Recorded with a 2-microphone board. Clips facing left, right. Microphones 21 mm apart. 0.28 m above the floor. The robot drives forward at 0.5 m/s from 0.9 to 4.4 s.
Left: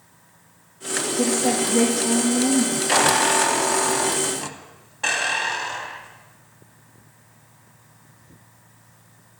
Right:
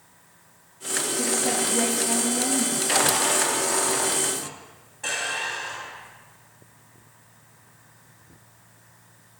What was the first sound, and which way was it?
A woman speaking, 65° left (ahead or behind).